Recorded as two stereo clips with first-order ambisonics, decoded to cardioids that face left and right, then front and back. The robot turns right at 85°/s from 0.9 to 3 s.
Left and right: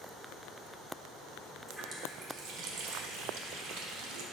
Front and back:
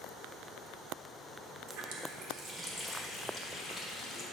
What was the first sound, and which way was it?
A running tap, 175° left.